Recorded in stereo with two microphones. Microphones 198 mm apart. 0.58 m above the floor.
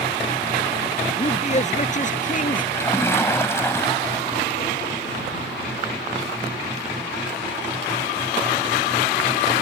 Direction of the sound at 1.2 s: 35° left (ahead or behind).